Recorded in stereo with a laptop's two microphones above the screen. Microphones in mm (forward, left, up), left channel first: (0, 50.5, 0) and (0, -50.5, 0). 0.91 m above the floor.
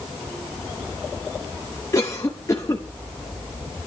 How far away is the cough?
About 1.1 m.